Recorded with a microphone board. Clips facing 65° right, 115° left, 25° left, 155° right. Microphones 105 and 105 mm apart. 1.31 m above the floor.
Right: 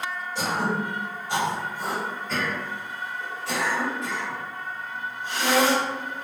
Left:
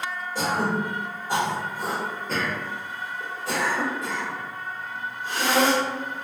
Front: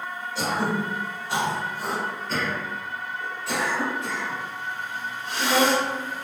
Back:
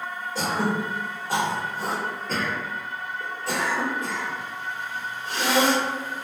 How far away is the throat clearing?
About 1.1 m.